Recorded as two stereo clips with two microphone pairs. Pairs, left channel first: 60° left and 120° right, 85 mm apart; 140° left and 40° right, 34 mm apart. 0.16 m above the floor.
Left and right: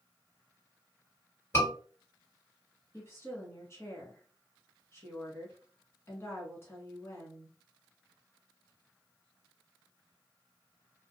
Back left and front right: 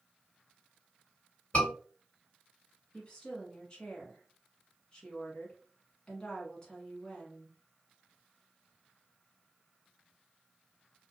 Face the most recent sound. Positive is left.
turn(degrees=95)